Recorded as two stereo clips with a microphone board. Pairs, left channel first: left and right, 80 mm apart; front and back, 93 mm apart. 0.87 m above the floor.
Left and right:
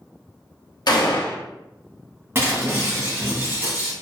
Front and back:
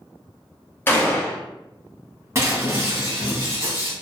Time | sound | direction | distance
0.9 | a gunshot | 65° left | 0.6 m
2.4 | breaking glass | 135° right | 1.0 m